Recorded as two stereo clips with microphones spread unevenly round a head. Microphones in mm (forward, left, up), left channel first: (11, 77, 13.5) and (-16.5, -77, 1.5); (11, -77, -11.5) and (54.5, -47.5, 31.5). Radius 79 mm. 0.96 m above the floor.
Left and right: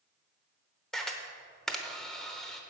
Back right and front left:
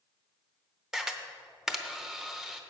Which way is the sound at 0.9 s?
5° right.